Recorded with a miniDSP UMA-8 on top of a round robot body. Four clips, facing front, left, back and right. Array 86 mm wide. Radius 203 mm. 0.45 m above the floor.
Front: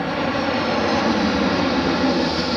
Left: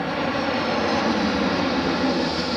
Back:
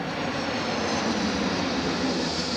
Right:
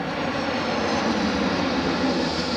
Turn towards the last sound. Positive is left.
turn(degrees=10)